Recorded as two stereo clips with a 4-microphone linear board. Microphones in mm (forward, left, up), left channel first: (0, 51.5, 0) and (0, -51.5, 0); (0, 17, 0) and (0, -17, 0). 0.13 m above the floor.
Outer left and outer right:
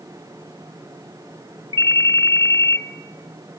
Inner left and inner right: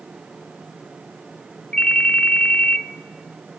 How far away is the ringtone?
About 0.6 m.